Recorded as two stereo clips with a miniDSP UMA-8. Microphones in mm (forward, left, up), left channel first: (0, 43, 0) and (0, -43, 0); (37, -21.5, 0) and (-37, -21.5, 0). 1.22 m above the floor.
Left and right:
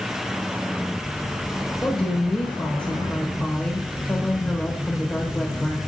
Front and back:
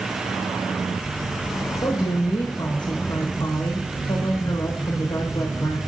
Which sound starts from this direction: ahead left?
A woman speaking, at 1.8 s.